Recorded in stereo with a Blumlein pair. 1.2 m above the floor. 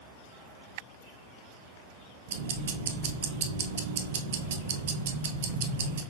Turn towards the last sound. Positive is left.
turn(degrees=-55)